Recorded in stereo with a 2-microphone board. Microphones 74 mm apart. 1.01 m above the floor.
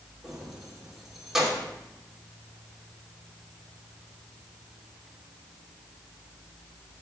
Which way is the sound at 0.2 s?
5° right (ahead or behind).